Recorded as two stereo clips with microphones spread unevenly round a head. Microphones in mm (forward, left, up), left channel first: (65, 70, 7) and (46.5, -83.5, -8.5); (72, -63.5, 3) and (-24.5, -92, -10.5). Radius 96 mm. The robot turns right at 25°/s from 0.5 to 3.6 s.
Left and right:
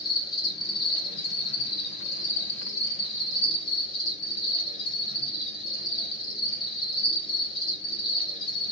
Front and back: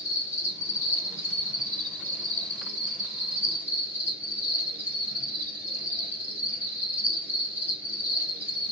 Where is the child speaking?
No child speaking in this recording.